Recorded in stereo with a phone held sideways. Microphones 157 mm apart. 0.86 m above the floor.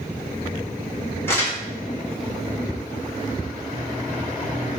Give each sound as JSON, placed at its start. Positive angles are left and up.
{"t": 1.3, "sound": "crumpling", "side_deg": 15, "distance_m": 1.2}